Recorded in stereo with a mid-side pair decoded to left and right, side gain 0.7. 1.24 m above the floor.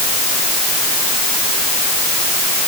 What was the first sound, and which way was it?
Only background noise.